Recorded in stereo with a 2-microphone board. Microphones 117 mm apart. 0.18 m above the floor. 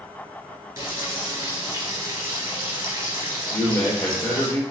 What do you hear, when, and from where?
0.8 s frying: 25° right (ahead or behind), 3 m
3.5 s a man speaking: 15° left (ahead or behind), 3.5 m